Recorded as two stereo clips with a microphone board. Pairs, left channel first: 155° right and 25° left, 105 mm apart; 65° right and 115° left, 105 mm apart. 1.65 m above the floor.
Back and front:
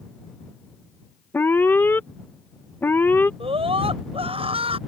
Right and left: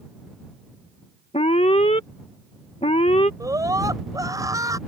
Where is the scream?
55° left.